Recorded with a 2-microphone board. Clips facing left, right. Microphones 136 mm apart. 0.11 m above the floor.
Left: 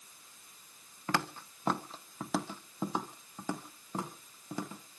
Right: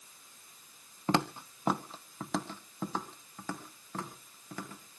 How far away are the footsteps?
About 0.9 m.